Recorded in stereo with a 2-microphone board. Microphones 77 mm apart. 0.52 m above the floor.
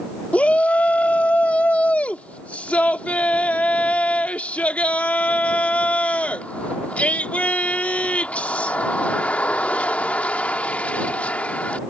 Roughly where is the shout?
Centre.